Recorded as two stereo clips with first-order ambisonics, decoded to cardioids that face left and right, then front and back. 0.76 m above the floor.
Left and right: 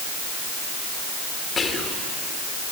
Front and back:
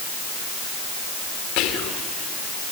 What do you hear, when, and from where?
1.6 s whispering: 20° left, 1.8 m